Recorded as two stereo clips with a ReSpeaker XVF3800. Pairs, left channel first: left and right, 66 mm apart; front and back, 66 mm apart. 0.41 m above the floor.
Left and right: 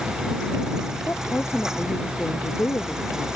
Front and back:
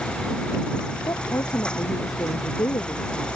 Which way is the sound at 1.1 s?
30° left.